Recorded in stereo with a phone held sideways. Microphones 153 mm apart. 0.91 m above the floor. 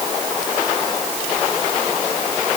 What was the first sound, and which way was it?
Only background noise.